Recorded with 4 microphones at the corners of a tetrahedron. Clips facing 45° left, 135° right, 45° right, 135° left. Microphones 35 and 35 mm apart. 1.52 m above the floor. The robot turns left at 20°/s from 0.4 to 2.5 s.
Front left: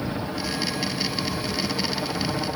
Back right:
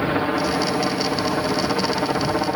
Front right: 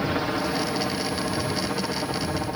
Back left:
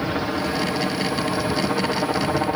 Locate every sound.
0.0 s a helicopter: 140° right; by 2.6 s straight behind